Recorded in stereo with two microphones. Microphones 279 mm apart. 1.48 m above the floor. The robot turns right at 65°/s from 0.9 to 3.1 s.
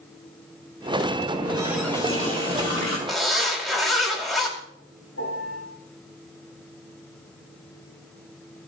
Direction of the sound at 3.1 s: Centre (ahead or behind).